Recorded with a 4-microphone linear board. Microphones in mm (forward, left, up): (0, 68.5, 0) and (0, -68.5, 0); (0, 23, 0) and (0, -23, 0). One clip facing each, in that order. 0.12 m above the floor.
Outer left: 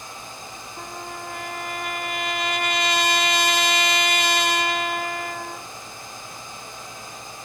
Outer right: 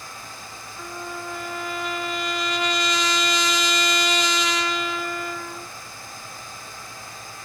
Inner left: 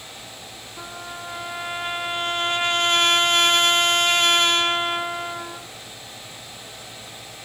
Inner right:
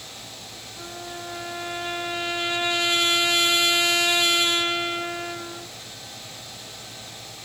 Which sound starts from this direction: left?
A trumpet, at 0.8 s.